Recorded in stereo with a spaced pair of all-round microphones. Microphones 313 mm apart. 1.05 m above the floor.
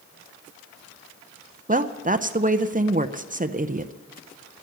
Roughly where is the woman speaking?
Right.